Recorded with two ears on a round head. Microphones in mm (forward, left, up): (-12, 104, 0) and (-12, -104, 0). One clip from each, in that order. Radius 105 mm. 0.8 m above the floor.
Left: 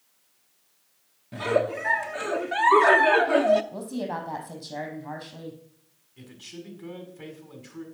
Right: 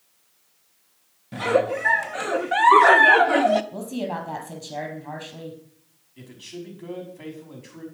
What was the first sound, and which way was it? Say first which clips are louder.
A giggle: right 3 dB; 10° right (ahead or behind).